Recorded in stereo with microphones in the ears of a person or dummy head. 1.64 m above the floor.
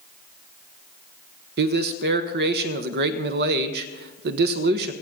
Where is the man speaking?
55° right (ahead or behind), 1.0 m.